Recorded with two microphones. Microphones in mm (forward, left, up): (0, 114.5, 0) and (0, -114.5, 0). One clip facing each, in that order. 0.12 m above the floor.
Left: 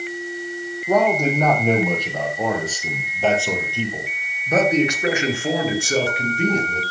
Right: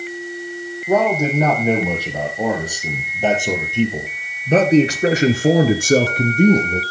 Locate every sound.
0.9 s a man speaking: 5° right (ahead or behind), 5.5 m; by 6.8 s 40° right (ahead or behind), 2 m